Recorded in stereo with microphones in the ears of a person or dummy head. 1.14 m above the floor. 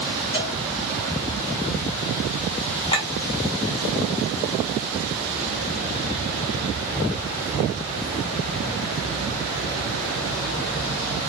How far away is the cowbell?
About 4.5 m.